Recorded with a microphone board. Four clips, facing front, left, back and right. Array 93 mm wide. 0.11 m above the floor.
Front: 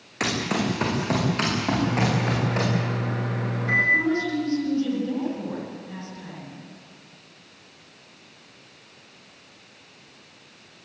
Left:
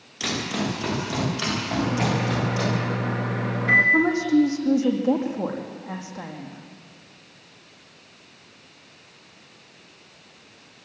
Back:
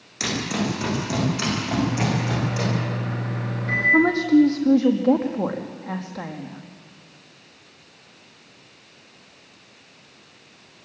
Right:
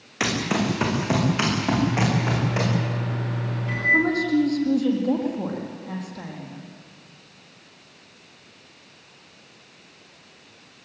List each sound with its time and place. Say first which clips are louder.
0.2 s running footsteps: right 4 dB, even; 55° right, 8 m; by 2.7 s 50° right, 12 m
1.8 s a microwave: right 1 dB, back 1 dB; 80° left, 6.5 m
3.9 s a woman speaking: left 1 dB, back 7 dB; 160° left, 4.5 m